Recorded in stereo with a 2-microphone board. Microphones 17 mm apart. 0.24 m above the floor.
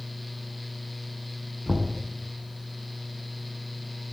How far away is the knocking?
About 2 m.